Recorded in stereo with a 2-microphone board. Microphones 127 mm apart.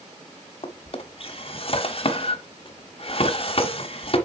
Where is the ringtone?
No ringtone in this recording.